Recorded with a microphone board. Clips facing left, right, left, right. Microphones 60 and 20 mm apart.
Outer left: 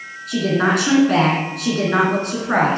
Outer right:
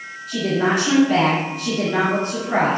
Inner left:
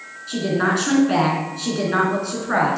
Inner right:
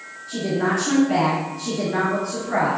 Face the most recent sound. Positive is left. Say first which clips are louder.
# outer left 2 dB, inner left 2 dB
turn(degrees=70)  # may be behind; listen again after turning